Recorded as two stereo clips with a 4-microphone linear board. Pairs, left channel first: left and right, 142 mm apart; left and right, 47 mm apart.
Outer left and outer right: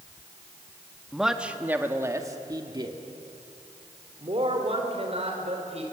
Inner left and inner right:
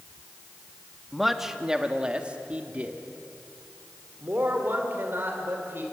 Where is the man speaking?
Centre (ahead or behind), 1.4 m; by 5.8 s 50° right (ahead or behind), 3.5 m.